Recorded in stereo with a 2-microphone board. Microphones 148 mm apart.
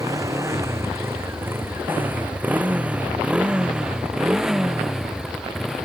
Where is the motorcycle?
20° right (ahead or behind); by 5.9 s centre (ahead or behind).